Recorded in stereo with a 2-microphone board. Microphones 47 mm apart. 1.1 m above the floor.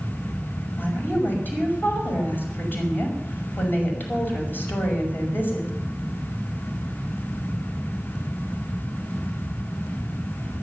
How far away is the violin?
No violin in this recording.